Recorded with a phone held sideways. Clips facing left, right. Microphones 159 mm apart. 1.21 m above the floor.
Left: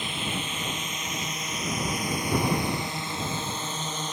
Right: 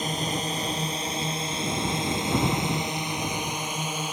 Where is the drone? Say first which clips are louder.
Right 4 dB; 40° right (ahead or behind); by 4.1 s 10° right (ahead or behind).